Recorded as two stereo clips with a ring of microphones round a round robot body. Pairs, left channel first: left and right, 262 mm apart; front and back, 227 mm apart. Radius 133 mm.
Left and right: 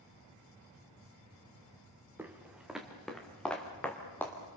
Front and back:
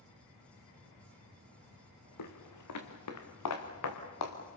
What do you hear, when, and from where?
2.2 s footsteps: 5° right, 2.5 m; by 4.4 s 5° left, 4.5 m